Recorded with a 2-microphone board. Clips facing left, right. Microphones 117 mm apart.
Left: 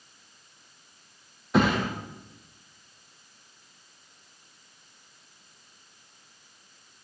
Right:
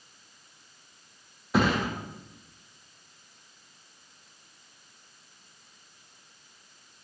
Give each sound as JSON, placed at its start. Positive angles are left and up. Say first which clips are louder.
{"t": 1.5, "sound": "a thud", "louder": "left 2 dB", "side_deg": 0, "distance_m": 5.5}